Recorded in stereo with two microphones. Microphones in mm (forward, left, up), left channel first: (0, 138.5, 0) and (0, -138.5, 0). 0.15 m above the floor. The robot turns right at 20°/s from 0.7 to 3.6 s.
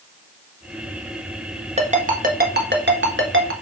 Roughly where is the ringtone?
Right.